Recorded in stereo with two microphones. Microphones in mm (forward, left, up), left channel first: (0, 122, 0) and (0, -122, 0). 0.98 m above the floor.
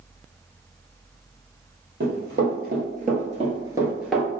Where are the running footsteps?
45° right (ahead or behind), 1.6 m; by 4.3 s 5° left (ahead or behind), 0.9 m.